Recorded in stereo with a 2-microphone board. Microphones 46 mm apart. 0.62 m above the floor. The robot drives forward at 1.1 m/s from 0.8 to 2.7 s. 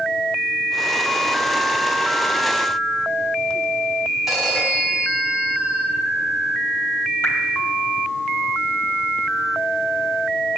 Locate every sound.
4.3 s a phone ringing: 5° right (ahead or behind), 4 m
7.2 s dripping: 65° left (ahead or behind), 3 m